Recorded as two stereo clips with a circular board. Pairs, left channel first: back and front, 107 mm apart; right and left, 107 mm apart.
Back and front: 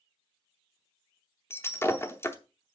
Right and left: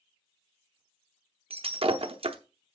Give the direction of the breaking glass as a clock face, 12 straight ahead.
8 o'clock.